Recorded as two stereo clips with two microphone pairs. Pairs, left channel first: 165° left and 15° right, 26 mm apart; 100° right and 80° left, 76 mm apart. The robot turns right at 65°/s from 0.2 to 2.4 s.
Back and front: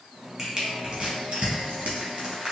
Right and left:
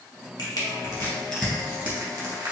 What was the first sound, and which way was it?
Crushing, 85° right.